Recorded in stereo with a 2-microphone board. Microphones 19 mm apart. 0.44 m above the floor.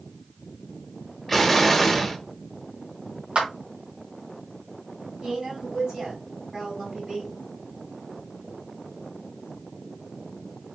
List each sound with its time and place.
1.3 s an explosion: 5° left (ahead or behind), 0.8 m
3.4 s a clap: 60° right (ahead or behind), 2 m
5.2 s a woman speaking: 30° right (ahead or behind), 4 m